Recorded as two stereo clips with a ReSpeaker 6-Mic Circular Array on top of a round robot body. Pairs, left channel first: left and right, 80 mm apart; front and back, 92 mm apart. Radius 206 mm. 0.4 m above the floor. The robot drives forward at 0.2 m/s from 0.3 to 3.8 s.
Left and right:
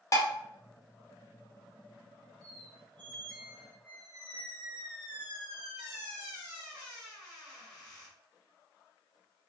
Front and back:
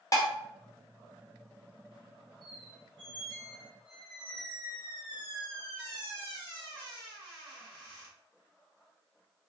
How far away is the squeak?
About 1.5 m.